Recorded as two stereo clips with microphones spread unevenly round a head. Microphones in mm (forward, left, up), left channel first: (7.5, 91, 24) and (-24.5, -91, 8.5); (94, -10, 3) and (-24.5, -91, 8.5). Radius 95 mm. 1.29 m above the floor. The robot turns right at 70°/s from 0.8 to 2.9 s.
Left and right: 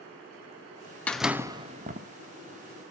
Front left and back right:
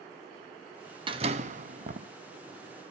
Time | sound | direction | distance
1.1 | a door slam | 160° left | 0.8 m